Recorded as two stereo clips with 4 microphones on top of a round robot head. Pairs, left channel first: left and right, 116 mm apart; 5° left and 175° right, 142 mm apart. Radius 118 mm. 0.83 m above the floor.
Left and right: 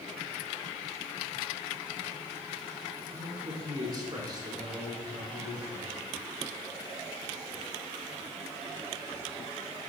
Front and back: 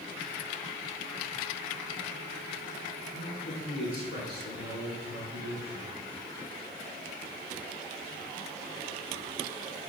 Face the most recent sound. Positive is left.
turn(degrees=-30)